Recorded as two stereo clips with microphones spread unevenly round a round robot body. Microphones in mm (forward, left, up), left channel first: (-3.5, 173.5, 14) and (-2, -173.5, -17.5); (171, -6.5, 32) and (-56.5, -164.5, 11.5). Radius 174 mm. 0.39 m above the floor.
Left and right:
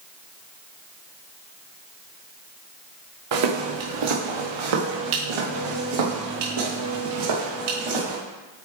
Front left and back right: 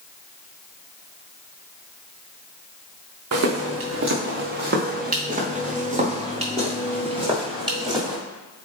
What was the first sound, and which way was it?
Footsteps, 110° right.